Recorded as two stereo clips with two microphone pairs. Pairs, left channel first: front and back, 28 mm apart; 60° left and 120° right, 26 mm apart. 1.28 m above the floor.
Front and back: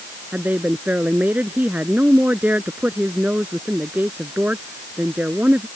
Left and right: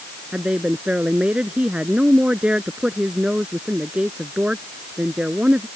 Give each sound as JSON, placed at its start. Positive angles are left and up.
{"t": 0.3, "sound": "a woman speaking", "azimuth_deg": -165}